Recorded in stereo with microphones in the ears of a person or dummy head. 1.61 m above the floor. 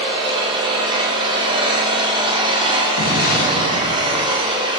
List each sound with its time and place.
0.0 s an engine running: 25° right (ahead or behind), 2.5 m
3.0 s an explosion: 45° left (ahead or behind), 2.5 m